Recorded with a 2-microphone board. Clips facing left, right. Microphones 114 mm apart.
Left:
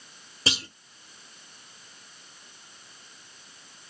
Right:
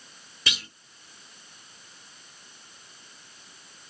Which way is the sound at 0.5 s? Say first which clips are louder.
Left 4 dB; 30° left (ahead or behind).